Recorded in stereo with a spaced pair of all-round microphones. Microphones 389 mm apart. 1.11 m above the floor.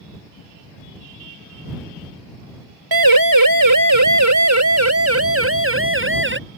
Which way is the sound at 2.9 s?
60° right (ahead or behind).